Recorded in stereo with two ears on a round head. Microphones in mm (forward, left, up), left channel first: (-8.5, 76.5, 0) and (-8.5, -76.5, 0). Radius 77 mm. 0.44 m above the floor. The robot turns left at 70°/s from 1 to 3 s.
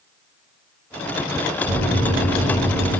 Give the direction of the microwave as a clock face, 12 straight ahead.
3 o'clock.